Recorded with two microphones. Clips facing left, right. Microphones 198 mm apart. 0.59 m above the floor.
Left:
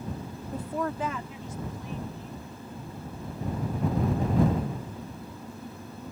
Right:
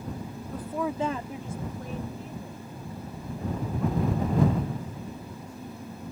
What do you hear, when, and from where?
0.5 s a woman speaking: 30° left (ahead or behind); by 6.0 s 80° right